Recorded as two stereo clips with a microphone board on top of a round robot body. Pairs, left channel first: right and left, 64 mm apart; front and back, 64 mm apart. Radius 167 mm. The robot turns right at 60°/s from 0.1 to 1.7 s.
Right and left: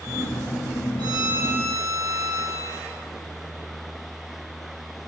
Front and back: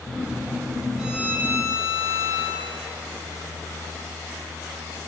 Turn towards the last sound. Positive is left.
turn(degrees=145)